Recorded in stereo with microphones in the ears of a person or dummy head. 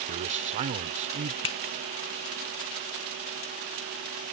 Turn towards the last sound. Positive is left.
turn(degrees=30)  # may be behind; listen again after turning